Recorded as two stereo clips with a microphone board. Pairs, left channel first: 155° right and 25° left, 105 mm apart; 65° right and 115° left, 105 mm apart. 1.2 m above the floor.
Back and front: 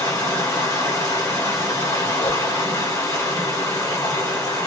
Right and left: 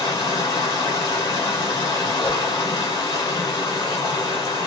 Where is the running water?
105° right, 1.7 m.